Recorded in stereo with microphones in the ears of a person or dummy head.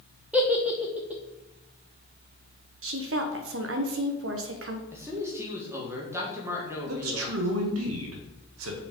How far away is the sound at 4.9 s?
About 1.9 m.